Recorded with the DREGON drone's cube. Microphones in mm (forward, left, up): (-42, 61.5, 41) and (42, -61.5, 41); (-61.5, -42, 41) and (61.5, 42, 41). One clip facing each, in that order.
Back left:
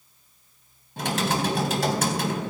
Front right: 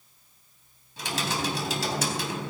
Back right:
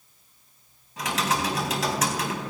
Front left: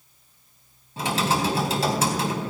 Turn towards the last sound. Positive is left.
turn(degrees=95)